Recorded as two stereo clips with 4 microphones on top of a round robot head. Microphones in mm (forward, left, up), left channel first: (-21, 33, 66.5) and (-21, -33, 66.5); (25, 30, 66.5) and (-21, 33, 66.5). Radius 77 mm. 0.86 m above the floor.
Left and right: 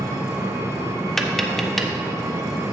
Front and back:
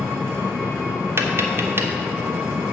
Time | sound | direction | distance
0.0 | an engine running | 140° right | 1.1 m
1.2 | tapping | 175° left | 0.9 m